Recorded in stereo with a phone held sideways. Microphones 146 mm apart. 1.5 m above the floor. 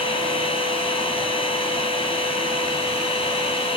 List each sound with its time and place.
0.0 s a machine running: 40° left (ahead or behind), 2.5 m